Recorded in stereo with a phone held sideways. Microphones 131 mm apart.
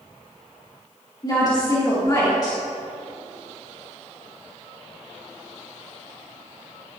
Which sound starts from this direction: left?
A woman speaking, at 1.2 s.